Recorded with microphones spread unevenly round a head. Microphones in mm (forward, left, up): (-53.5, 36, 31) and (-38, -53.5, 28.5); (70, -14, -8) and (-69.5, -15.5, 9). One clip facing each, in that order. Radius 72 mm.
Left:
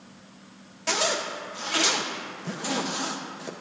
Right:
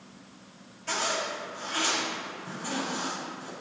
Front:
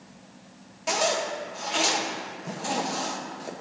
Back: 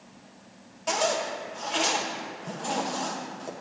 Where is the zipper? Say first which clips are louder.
Left 3 dB, front 1 dB; 85° left, 0.7 m.